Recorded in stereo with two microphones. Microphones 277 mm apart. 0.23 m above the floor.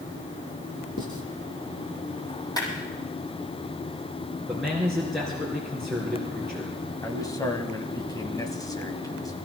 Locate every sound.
1.0 s writing: 50° left (ahead or behind), 2 m
2.6 s a clap: 15° left (ahead or behind), 6.5 m
4.5 s a man speaking: centre (ahead or behind), 3.5 m
7.0 s a man speaking: 15° left (ahead or behind), 1.7 m